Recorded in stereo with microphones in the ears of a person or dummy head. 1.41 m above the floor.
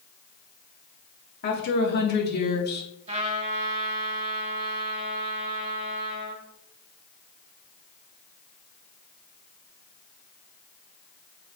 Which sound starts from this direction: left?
A woman speaking, at 1.4 s.